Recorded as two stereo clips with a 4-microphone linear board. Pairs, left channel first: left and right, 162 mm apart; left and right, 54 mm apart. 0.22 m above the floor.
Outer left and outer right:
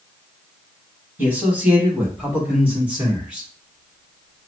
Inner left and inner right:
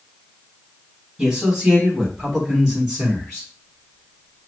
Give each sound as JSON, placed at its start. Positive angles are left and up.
{"t": 1.2, "sound": "a man speaking", "side_deg": -10, "distance_m": 1.4}